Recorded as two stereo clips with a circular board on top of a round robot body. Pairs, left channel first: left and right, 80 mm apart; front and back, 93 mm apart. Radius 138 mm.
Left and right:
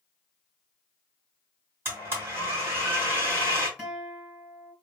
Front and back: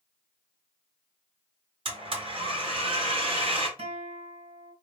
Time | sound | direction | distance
1.9 | a blender | 155° right | 1.8 m
3.8 | a guitar | 165° right | 2 m